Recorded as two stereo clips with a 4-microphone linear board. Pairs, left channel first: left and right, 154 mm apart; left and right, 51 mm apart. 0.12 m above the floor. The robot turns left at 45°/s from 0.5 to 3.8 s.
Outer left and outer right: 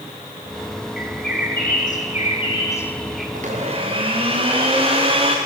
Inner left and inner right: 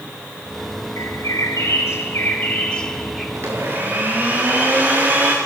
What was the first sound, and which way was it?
A bird, 100° left.